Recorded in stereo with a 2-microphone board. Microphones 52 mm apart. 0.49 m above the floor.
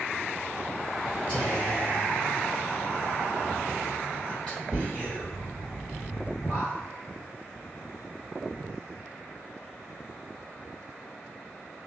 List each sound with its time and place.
1.3 s whispering: 25° left (ahead or behind), 1.9 m